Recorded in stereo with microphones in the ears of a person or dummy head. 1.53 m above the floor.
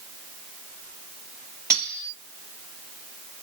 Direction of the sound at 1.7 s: 10° right (ahead or behind).